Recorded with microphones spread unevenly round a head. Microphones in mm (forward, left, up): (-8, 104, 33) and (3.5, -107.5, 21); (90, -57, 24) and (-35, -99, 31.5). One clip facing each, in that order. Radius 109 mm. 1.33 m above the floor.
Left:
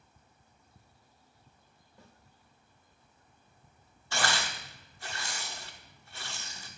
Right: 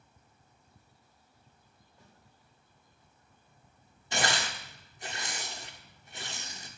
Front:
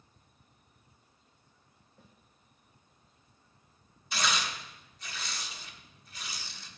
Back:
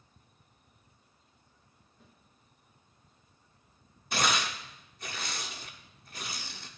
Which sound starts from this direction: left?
A snare drum, at 2.0 s.